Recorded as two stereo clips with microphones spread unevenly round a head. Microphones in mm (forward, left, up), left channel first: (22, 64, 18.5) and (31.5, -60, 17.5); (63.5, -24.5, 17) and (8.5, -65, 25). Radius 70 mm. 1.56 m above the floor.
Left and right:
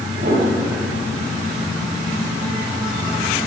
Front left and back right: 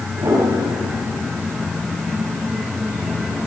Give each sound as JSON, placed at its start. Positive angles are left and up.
{"t": 0.2, "sound": "a piano", "azimuth_deg": -105, "distance_m": 8.5}